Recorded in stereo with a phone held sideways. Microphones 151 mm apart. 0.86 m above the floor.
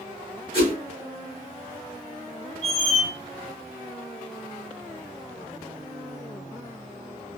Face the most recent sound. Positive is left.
turn(degrees=55)  # may be behind; listen again after turning